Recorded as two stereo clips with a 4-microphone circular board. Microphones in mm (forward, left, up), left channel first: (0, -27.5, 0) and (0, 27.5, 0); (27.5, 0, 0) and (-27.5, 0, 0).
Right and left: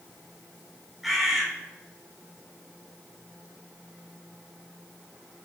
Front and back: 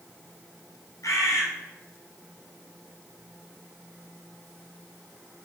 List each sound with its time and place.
1.0 s a bird: straight ahead, 3.5 m